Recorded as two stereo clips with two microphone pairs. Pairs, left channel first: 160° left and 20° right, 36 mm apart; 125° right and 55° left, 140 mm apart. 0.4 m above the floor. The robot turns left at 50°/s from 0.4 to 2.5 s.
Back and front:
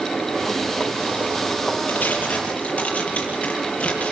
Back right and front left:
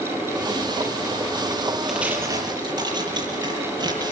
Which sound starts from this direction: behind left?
Tearing paper, at 1.9 s.